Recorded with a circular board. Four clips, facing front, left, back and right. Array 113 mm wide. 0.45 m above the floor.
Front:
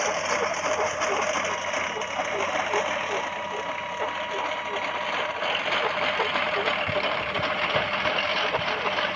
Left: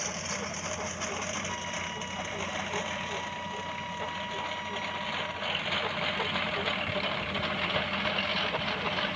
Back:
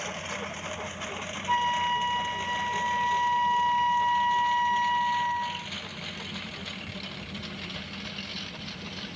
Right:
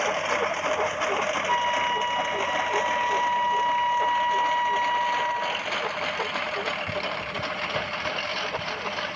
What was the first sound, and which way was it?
A lawn mower, 45° right.